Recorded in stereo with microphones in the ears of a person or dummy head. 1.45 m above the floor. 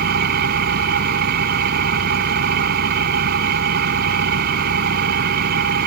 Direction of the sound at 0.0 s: 45° right (ahead or behind).